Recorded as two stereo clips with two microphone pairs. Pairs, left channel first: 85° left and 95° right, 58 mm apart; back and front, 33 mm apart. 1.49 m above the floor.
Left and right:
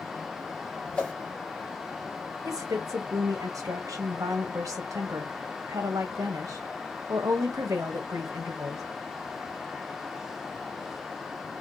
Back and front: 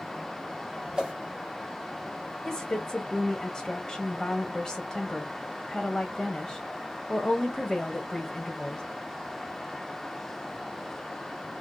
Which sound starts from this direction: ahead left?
A whoosh, at 0.9 s.